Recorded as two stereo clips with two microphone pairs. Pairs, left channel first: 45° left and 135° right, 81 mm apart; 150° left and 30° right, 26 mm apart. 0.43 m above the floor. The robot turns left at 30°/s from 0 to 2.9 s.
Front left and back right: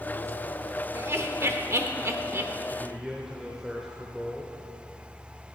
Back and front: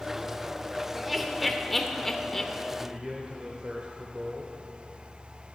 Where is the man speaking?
45° right, 1.0 m; by 4.6 s 50° right, 1.0 m.